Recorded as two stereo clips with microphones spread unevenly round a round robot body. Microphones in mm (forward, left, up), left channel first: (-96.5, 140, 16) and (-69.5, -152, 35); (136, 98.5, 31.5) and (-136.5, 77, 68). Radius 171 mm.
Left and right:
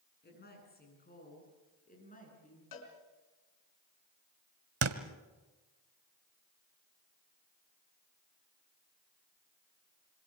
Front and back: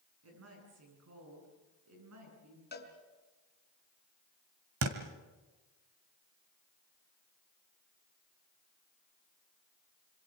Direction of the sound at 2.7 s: 60° left.